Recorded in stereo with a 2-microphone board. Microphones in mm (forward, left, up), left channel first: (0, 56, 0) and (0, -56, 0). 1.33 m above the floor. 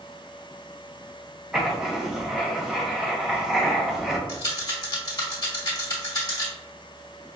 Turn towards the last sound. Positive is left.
turn(degrees=35)  # may be behind; listen again after turning